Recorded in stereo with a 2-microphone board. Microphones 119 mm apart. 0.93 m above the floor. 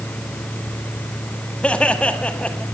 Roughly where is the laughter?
Centre.